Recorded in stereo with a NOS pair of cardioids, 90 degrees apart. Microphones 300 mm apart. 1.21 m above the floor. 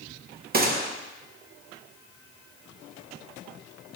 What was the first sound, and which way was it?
A gunshot, 30° right.